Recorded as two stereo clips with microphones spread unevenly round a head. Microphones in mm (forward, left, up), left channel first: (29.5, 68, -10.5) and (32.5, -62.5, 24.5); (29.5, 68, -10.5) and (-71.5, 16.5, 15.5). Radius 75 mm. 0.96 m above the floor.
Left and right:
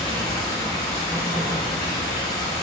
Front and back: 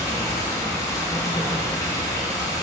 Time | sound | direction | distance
0.0 | running water | 85° left | 1.1 m